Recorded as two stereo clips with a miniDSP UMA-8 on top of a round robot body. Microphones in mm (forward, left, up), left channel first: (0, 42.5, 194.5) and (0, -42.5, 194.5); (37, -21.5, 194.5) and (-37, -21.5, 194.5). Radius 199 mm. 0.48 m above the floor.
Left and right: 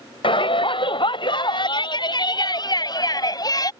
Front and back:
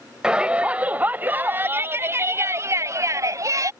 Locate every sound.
0.2 s a shout: 100° left; by 3.7 s 135° left